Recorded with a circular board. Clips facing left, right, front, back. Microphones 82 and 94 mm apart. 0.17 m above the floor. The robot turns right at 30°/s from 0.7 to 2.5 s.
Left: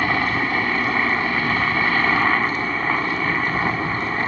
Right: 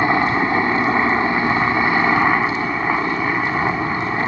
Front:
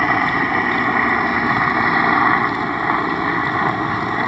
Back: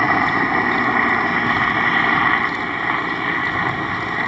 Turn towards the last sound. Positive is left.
turn(degrees=-40)